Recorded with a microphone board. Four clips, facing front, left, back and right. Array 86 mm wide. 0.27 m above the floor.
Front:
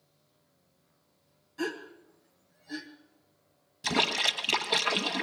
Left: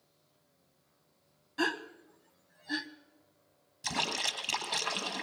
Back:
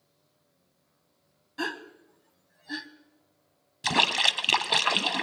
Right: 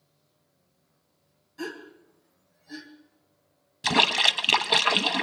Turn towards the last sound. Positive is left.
turn(degrees=-115)